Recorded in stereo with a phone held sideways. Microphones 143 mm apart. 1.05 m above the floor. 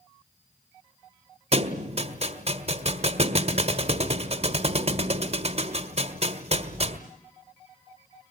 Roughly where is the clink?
No clink in this recording.